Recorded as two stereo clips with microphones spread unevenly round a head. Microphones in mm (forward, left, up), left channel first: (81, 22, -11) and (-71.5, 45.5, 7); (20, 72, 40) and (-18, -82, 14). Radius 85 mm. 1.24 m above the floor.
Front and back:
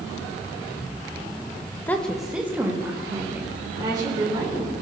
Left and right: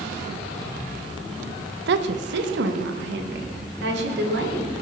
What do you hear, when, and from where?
1.9 s a woman speaking: 90° right, 1.1 m; by 4.7 s 120° right, 4.5 m